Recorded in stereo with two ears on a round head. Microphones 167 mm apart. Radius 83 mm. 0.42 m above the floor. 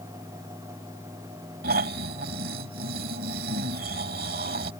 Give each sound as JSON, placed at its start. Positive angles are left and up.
{"t": 1.6, "sound": "snoring", "side_deg": -50}